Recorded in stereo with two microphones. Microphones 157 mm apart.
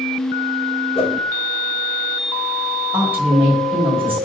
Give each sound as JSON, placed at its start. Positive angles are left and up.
{"t": 0.9, "sound": "a whoosh", "side_deg": 35, "distance_m": 0.6}
{"t": 2.9, "sound": "a woman speaking", "side_deg": -10, "distance_m": 1.5}